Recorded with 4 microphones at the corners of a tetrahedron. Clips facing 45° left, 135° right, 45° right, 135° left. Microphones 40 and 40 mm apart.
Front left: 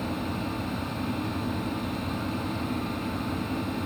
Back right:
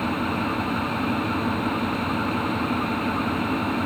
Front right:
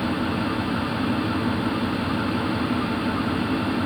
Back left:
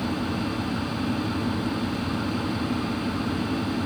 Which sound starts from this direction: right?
An engine running, at 0.0 s.